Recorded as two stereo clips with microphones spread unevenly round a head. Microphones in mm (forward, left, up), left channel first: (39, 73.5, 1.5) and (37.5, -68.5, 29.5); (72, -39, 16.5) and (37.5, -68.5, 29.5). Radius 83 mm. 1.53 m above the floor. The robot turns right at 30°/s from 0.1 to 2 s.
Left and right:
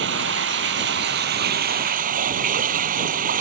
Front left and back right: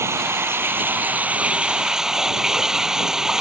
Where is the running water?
120° right; by 3.4 s 60° right.